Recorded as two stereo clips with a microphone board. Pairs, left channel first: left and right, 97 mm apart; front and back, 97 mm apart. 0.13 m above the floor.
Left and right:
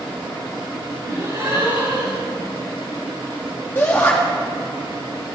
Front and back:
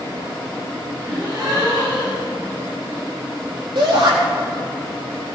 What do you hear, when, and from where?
1.1 s a gasp: 135° right, 5 m
3.8 s a shout: 155° left, 4.5 m